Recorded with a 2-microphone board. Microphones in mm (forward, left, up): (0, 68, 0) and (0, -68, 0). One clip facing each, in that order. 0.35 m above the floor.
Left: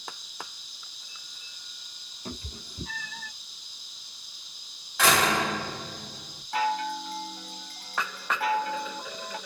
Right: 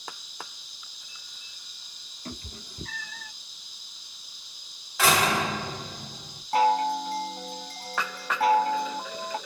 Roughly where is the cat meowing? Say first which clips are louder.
Left 1 dB; left.